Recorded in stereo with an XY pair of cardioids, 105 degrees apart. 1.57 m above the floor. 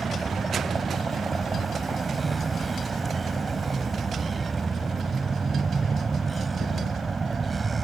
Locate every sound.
0.0 s a vehicle: 25° right